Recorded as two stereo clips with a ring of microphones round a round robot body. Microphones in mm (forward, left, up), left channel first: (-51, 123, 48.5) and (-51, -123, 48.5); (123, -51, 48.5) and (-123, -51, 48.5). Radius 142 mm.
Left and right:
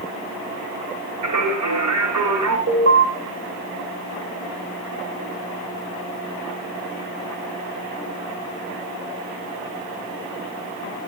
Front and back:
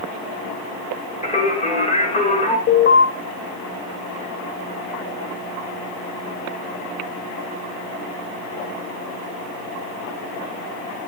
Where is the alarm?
40° right, 3.5 m.